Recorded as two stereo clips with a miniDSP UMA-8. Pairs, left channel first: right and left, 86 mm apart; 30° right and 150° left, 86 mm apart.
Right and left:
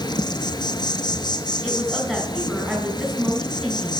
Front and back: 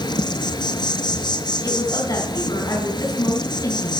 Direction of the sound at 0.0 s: 60° right.